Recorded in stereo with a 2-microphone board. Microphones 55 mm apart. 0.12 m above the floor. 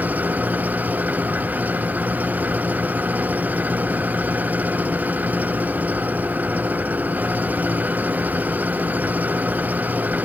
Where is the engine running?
30° right (ahead or behind).